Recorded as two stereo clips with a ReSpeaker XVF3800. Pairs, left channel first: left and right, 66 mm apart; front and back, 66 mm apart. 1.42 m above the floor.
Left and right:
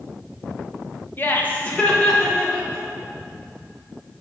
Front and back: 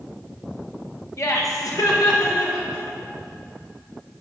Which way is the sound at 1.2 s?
35° left.